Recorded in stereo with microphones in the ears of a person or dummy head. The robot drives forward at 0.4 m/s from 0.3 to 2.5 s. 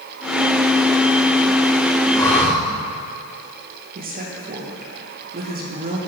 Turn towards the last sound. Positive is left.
turn(degrees=-40)  # may be behind; listen again after turning